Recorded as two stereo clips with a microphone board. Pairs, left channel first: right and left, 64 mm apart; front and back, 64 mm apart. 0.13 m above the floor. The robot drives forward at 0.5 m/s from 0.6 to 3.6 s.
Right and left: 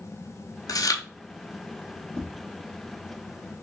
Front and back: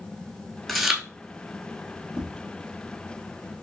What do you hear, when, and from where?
0.7 s chewing: 85° right, 0.6 m; by 1.0 s 100° right, 0.6 m
2.2 s tapping: 50° right, 1.9 m